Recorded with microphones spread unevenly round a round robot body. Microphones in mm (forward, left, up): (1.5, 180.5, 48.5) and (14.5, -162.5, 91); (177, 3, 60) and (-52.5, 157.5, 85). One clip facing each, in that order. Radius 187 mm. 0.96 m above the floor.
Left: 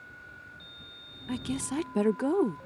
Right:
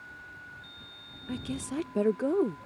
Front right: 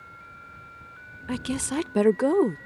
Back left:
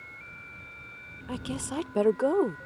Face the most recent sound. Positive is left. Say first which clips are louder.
# left 2 dB, front right 6 dB
turn(degrees=20)